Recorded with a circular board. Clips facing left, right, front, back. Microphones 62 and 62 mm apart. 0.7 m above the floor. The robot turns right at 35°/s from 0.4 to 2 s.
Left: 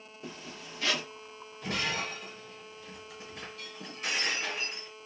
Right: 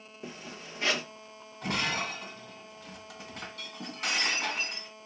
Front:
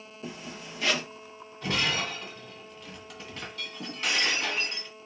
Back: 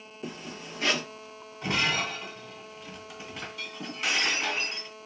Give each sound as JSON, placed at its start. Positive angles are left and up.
{"t": 0.2, "sound": "a zipper", "azimuth_deg": -155, "distance_m": 1.9}
{"t": 1.6, "sound": "breaking glass", "azimuth_deg": -115, "distance_m": 2.0}